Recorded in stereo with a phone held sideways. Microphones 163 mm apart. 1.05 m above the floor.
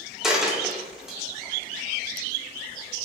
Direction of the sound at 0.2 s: 5° right (ahead or behind).